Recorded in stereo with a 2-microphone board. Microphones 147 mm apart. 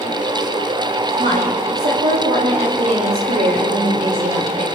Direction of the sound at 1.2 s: 75° right (ahead or behind).